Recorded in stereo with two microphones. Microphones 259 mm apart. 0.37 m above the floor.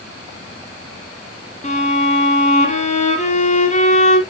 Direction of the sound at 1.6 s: 30° left (ahead or behind).